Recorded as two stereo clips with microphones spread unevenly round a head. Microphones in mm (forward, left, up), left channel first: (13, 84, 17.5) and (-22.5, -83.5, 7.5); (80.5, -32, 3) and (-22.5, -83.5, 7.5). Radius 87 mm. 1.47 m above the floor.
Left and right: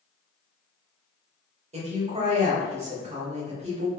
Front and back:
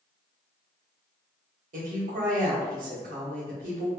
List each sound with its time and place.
1.7 s a woman speaking: 160° right, 2 m